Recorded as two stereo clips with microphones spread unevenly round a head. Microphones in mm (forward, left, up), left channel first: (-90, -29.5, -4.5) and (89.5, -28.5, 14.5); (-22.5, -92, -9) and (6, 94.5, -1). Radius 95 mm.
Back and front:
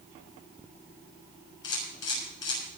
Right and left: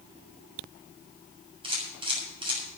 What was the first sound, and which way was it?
A camera shutter, 145° left.